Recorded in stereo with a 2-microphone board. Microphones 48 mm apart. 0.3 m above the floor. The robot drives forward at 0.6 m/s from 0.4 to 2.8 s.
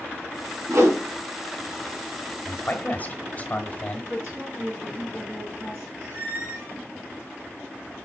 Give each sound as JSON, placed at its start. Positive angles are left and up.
{"t": 0.7, "sound": "a whoosh", "side_deg": -70, "distance_m": 1.7}
{"t": 2.5, "sound": "a man speaking", "side_deg": 35, "distance_m": 1.3}
{"t": 4.1, "sound": "a woman speaking", "side_deg": -60, "distance_m": 3.0}
{"t": 6.0, "sound": "a squeak", "side_deg": -70, "distance_m": 3.5}